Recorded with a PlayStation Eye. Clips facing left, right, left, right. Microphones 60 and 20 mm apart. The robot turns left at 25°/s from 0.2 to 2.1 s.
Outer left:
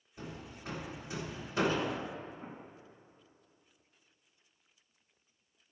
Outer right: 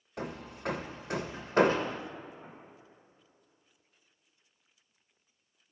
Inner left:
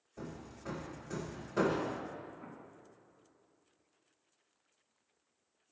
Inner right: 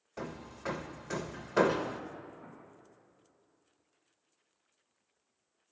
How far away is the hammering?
About 0.6 m.